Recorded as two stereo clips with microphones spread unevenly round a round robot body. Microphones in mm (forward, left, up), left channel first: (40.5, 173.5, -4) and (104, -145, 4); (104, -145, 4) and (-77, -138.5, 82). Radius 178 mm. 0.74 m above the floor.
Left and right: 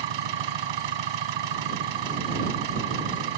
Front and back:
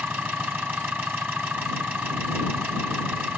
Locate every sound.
0.0 s an engine running: 100° right